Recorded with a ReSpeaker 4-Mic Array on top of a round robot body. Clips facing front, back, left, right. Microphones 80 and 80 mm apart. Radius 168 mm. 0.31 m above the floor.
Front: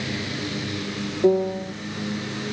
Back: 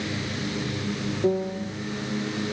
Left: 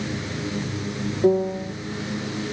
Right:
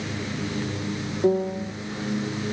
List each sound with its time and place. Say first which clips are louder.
1.2 s a piano: front 6 dB, left 3 dB; 10° left